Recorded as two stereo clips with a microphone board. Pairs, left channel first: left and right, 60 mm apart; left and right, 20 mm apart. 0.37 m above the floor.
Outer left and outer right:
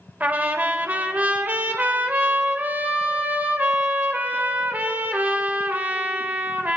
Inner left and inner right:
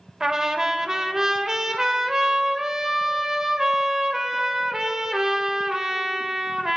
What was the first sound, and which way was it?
A trumpet, 30° right (ahead or behind).